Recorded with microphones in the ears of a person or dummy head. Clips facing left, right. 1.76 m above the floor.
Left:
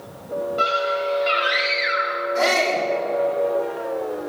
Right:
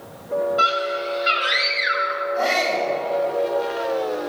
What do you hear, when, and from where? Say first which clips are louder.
0.6 s a scream: left 1 dB; 5° right (ahead or behind), 8.5 m
2.4 s a shout: left 2 dB; 85° left, 7.5 m